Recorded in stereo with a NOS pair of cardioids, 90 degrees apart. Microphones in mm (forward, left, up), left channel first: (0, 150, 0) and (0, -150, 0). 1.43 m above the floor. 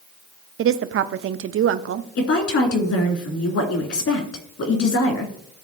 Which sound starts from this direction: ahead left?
A woman speaking, at 2.2 s.